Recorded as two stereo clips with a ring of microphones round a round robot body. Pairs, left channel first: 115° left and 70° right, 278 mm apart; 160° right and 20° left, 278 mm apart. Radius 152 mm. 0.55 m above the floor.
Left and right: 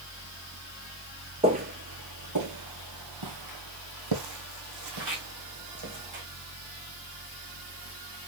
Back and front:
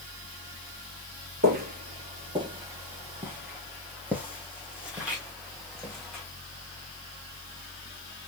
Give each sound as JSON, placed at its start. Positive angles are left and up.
{"t": 1.4, "sound": "footsteps", "azimuth_deg": -10, "distance_m": 0.6}